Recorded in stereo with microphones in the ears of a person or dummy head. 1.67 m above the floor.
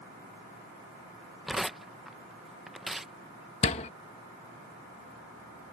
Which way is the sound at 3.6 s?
35° left (ahead or behind).